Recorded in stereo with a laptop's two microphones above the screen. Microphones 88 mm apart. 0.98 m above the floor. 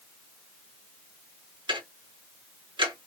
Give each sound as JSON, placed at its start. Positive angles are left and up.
{"t": 1.7, "sound": "ticking", "side_deg": -65, "distance_m": 1.2}